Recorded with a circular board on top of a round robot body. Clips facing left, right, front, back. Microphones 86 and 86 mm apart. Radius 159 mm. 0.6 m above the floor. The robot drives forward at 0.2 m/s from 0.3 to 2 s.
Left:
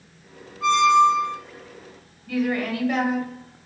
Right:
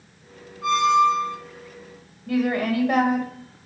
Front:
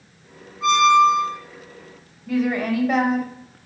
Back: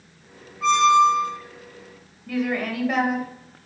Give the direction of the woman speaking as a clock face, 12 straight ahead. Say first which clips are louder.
Right 2 dB, front 4 dB; 3 o'clock.